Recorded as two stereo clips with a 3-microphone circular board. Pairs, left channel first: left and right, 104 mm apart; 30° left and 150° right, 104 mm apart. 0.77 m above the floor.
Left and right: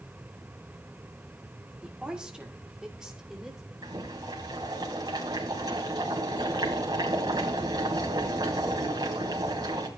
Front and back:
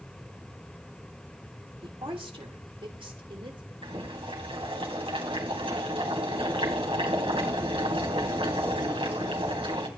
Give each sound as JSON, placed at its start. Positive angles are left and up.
{"t": 1.8, "sound": "a woman speaking", "azimuth_deg": -170, "distance_m": 1.6}
{"t": 3.8, "sound": "boiling", "azimuth_deg": -135, "distance_m": 3.0}